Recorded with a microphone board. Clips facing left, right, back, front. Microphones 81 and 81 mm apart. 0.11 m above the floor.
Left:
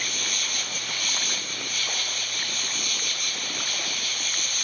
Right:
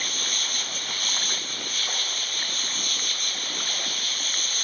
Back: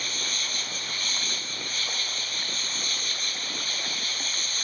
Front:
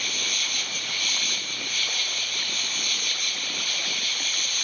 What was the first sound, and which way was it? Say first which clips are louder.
An insect: left 1 dB, front 2 dB; 130° right.